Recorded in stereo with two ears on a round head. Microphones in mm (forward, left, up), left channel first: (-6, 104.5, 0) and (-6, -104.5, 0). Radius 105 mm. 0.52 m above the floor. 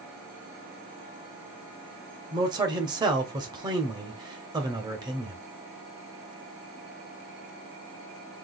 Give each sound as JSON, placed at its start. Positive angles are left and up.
{"t": 2.3, "sound": "a man speaking", "side_deg": -20, "distance_m": 1.2}